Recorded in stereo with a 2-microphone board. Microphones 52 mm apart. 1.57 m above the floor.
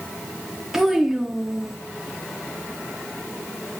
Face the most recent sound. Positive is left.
turn(degrees=-10)  # may be behind; listen again after turning